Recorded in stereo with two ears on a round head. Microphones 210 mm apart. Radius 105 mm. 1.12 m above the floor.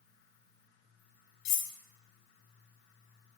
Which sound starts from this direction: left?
Cutlery clinking, at 1.4 s.